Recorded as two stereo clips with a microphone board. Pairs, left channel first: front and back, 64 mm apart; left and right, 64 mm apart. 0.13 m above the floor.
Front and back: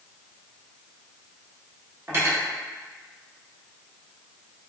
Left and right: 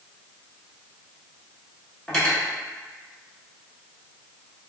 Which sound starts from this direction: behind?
Cutlery clinking, at 2.1 s.